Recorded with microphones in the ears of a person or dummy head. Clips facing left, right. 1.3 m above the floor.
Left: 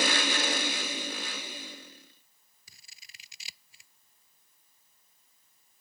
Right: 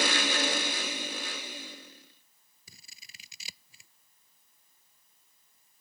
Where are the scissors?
80° right.